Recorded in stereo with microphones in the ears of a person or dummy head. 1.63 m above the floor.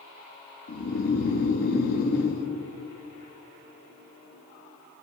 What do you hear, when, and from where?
0.7 s snoring: 55° left (ahead or behind), 0.9 m